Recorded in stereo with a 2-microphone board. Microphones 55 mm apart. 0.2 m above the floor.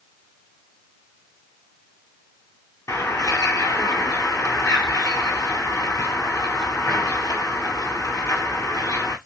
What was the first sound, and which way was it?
A bird, 75° left (ahead or behind).